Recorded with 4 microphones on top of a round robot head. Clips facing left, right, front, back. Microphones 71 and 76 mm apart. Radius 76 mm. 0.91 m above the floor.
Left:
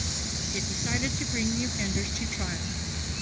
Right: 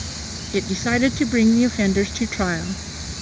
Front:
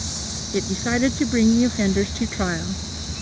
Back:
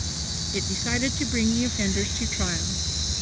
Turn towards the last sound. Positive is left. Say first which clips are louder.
# right 13 dB, front 7 dB
turn(degrees=-60)